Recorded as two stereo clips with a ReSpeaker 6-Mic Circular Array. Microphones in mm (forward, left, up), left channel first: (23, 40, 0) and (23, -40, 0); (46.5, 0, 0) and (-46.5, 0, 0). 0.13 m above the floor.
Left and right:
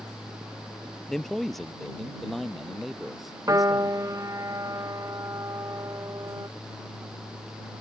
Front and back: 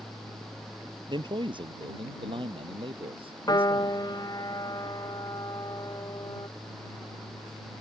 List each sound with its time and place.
1.1 s a man speaking: 175° left; by 4.0 s straight behind
3.5 s a piano: 40° right